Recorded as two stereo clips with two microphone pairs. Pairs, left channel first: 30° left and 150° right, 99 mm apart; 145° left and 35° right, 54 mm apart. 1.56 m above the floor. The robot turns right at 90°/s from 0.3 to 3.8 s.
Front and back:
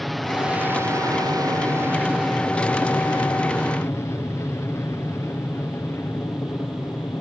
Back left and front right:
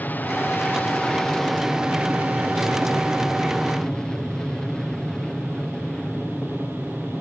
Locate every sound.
0.0 s an aircraft: 120° left; by 7.2 s 75° left